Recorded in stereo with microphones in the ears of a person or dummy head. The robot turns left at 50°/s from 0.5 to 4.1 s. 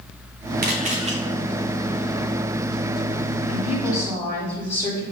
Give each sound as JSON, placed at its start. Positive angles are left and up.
{"t": 0.6, "sound": "a camera shutter", "side_deg": -45, "distance_m": 0.8}
{"t": 3.5, "sound": "a woman speaking", "azimuth_deg": 40, "distance_m": 3.0}